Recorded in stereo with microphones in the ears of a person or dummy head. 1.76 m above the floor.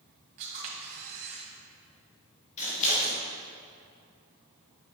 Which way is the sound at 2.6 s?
45° left (ahead or behind).